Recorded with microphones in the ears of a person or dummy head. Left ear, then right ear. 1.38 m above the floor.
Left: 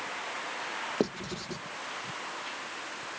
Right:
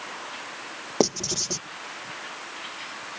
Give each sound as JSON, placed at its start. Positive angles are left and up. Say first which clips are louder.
{"t": 1.0, "sound": "writing", "louder": "right 14 dB", "side_deg": -55}